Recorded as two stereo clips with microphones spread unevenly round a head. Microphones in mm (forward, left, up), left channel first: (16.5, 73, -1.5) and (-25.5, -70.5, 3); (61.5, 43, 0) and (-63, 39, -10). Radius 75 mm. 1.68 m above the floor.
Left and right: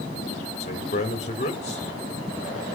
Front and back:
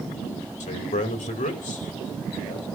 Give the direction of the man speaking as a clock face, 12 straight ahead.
11 o'clock.